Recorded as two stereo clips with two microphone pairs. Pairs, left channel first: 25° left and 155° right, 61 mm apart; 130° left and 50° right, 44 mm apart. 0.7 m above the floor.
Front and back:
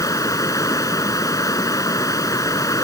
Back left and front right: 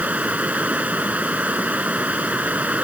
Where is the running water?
5° left.